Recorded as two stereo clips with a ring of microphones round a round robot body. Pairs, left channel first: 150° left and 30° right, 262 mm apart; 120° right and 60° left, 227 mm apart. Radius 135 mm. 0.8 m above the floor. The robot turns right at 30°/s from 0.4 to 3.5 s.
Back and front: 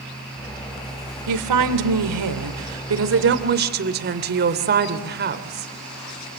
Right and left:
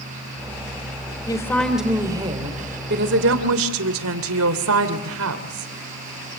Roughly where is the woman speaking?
Ahead right.